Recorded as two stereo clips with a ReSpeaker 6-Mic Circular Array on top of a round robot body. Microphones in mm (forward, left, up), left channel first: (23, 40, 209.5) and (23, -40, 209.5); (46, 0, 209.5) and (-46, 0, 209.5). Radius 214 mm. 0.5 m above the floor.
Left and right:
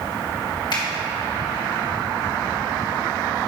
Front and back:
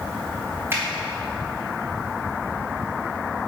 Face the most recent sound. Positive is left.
turn(degrees=115)